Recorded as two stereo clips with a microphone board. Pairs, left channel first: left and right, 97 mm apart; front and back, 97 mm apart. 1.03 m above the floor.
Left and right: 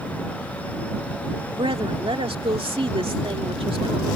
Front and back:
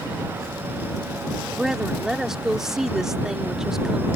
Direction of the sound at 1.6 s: 95° right.